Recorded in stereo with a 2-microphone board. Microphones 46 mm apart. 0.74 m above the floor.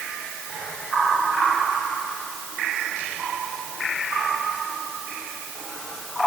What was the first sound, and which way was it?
Only background noise.